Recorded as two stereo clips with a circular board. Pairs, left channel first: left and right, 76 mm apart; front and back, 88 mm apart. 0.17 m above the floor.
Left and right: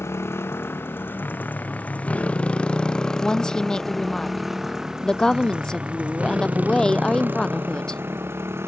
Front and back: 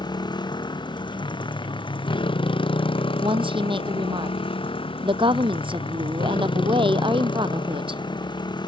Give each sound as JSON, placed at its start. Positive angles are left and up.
{"t": 0.0, "sound": "a motorcycle", "azimuth_deg": 35}
{"t": 3.2, "sound": "a woman speaking", "azimuth_deg": 170}